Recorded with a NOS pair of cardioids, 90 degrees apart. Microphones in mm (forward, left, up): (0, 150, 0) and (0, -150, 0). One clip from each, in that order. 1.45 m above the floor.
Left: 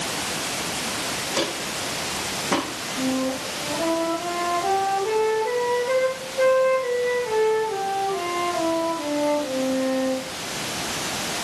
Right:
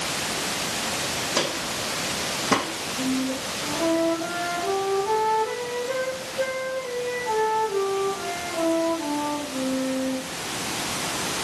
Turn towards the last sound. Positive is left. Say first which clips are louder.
# left 3 dB
turn(degrees=45)